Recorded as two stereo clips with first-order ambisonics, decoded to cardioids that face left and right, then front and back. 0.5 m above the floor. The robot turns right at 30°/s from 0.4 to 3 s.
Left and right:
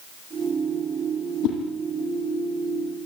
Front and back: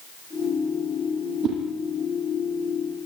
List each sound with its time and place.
1.4 s a whoosh: 125° left, 6.5 m; by 1.6 s 130° left, 6.5 m